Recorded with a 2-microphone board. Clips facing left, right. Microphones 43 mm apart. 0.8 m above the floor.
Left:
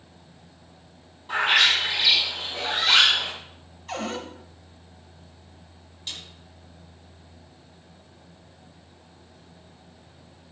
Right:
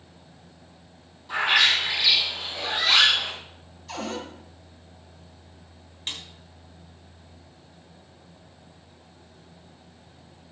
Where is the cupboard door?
45° left (ahead or behind), 2.5 m.